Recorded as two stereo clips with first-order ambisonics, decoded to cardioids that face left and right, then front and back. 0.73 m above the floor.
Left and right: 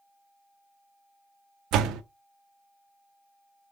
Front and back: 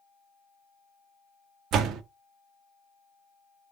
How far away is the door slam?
About 0.6 m.